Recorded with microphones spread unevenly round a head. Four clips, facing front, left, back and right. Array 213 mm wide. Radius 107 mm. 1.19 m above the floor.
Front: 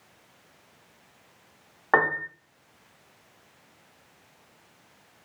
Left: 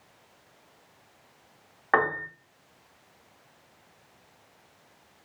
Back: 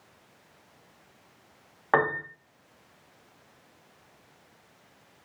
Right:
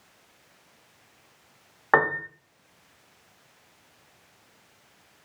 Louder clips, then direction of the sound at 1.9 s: Right 2 dB, front 1 dB; 50° right.